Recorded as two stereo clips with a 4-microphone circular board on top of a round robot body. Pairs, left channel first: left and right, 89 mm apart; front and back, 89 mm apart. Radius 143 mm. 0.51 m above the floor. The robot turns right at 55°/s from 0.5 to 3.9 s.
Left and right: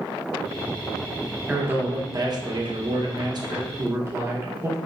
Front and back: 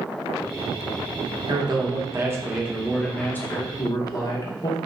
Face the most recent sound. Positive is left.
turn(degrees=-35)